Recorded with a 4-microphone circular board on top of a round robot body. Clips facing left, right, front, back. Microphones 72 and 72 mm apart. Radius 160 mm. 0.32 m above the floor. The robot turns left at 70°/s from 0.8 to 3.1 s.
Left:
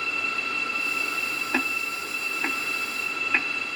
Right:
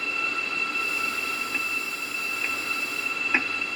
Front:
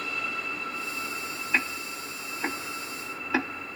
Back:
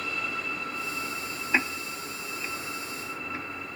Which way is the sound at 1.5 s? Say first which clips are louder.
Left 3 dB, back 2 dB; 105° left.